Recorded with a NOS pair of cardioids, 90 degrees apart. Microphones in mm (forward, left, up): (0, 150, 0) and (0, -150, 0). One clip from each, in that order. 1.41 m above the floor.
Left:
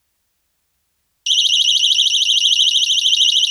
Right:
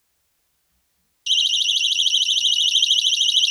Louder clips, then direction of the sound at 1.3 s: Left 5 dB; 50° left.